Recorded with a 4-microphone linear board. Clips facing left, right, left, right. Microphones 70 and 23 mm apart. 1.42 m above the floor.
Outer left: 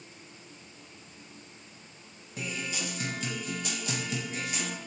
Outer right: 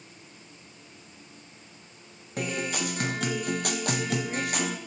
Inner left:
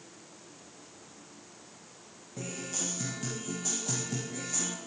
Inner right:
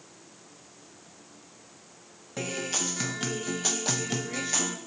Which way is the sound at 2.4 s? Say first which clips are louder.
Outer right 6 dB, inner right 6 dB; 55° right (ahead or behind).